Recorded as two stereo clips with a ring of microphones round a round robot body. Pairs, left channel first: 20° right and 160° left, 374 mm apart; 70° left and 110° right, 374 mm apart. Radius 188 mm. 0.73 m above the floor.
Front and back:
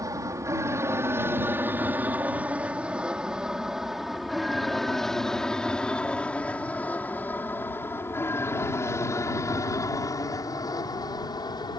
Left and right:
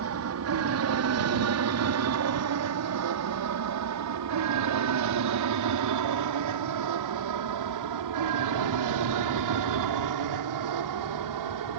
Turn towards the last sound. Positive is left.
turn(degrees=-100)